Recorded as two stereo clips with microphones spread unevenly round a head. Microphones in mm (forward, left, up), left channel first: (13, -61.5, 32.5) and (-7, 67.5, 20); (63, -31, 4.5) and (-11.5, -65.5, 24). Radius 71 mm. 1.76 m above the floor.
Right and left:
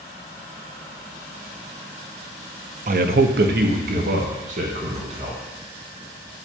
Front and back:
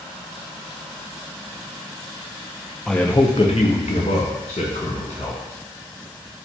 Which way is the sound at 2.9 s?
125° left.